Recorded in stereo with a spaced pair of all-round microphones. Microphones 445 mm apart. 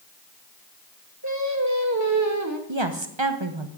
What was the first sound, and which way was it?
Singing, 40° right (ahead or behind).